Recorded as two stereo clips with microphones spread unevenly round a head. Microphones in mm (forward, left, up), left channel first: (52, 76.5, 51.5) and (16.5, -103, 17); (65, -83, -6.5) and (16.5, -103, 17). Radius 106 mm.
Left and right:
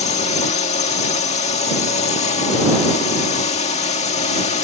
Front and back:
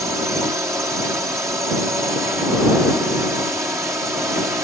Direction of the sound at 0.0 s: 135° left.